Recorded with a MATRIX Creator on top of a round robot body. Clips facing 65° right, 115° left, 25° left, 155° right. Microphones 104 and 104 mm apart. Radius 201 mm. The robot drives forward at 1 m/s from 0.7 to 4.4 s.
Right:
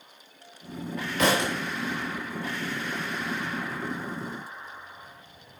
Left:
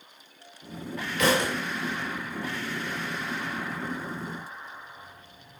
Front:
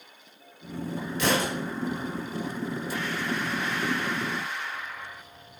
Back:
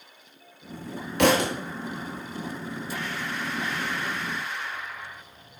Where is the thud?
130° right, 1.1 m; by 1.5 s 140° right, 1.4 m.